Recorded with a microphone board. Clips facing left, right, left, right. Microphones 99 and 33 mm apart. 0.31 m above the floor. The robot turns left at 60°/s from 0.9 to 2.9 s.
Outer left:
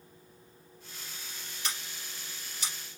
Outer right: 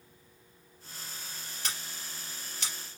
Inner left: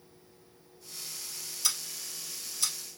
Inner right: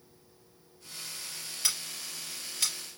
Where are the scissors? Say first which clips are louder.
Outer left 1 dB, inner right 1 dB; 40° right (ahead or behind), 3 m; by 2.7 s 75° right (ahead or behind), 3 m.